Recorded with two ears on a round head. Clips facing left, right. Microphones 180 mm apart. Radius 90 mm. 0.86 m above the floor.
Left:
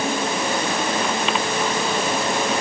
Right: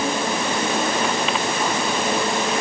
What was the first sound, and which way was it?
Only background noise.